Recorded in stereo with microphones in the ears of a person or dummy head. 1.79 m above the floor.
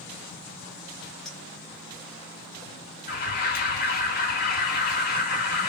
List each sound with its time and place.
1.2 s a clink: 5° left (ahead or behind), 1.3 m
3.1 s an alarm: 45° left (ahead or behind), 0.8 m